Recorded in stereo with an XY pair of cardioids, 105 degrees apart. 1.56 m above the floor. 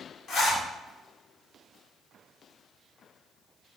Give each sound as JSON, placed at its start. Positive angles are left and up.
{"t": 0.3, "sound": "a zipper", "azimuth_deg": 60, "distance_m": 1.1}